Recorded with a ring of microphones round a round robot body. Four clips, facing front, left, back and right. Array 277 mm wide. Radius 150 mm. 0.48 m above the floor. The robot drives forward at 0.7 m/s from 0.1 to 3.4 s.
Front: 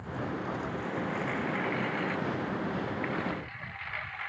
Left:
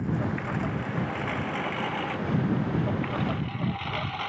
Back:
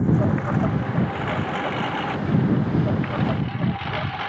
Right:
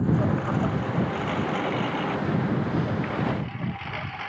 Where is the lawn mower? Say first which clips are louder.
Right 5 dB, back 14 dB; 160° right; by 4.3 s 175° left.